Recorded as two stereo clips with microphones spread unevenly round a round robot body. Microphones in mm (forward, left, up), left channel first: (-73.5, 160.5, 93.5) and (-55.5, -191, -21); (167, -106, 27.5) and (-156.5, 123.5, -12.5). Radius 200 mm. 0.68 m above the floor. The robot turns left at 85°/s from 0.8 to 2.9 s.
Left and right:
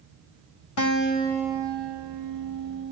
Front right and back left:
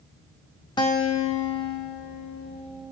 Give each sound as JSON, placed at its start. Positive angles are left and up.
{"t": 0.8, "sound": "a guitar", "azimuth_deg": 45, "distance_m": 1.3}